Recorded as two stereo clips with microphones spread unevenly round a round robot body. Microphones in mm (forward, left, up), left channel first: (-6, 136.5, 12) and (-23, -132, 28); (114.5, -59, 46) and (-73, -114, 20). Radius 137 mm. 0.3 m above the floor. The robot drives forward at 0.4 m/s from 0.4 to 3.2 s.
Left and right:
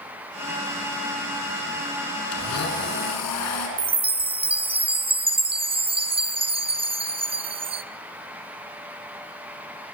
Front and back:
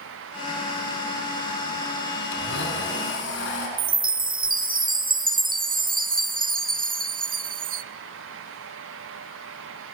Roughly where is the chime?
Behind.